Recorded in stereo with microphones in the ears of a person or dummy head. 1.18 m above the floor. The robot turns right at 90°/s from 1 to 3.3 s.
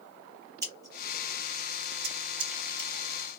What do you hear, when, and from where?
0.6 s scissors: 20° right (ahead or behind), 1.0 m; by 2.9 s 10° left (ahead or behind), 1.0 m